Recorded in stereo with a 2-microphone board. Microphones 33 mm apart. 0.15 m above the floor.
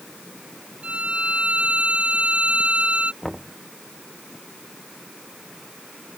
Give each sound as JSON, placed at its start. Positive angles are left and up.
{"t": 0.8, "sound": "a violin", "side_deg": -35}
{"t": 3.2, "sound": "knocking", "side_deg": 5}